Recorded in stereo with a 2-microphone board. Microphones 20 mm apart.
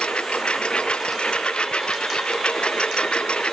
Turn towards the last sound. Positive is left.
turn(degrees=65)  # may be behind; listen again after turning